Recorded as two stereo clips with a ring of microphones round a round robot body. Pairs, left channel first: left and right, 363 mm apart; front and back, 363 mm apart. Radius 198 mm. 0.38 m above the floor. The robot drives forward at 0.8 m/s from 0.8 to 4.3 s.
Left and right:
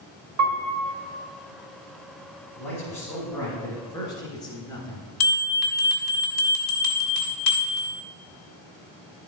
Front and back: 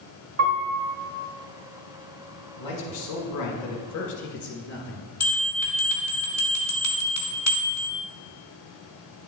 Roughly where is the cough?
No cough in this recording.